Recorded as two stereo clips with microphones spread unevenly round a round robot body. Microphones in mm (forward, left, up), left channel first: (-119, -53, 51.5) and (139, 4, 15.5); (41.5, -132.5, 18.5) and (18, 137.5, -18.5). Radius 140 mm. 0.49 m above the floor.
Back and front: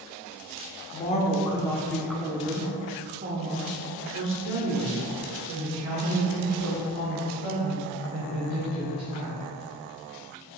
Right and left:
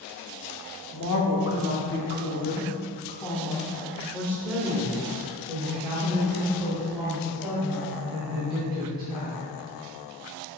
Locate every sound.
0.9 s a woman speaking: 110° right, 1.3 m; by 9.5 s 25° left, 4 m